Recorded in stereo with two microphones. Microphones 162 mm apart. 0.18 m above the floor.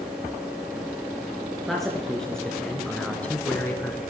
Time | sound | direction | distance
1.7 | a man speaking | centre (ahead or behind) | 3 m